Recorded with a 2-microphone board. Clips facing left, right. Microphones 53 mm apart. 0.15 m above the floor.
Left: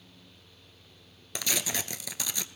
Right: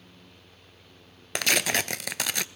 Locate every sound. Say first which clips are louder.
1.4 s tearing paper: right 8 dB; 65° right (ahead or behind), 0.5 m